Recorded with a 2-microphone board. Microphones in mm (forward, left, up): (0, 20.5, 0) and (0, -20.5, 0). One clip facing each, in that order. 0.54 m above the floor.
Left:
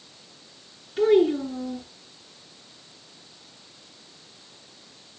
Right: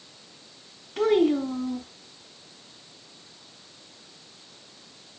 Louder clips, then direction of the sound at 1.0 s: Left 2 dB; 70° right (ahead or behind).